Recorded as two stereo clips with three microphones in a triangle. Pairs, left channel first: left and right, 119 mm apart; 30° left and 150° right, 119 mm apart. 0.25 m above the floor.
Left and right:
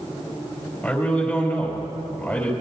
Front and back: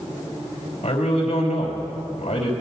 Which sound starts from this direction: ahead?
A man speaking, at 0.8 s.